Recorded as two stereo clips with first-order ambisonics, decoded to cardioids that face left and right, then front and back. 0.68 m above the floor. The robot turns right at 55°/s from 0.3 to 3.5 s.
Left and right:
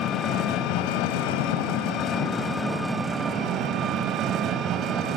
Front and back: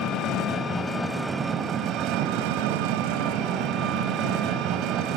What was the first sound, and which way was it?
An engine running, 40° left.